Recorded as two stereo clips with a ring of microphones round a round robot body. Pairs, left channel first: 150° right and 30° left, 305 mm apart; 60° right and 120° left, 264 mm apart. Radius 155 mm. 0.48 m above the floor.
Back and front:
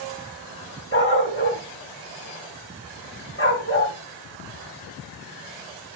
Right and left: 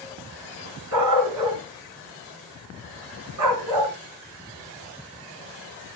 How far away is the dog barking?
About 2.5 m.